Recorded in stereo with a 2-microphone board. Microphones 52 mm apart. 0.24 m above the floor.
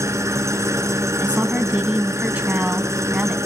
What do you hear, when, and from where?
0.0 s an engine running: 70° right (ahead or behind), 1.3 m
1.2 s a woman speaking: 30° right (ahead or behind), 1.7 m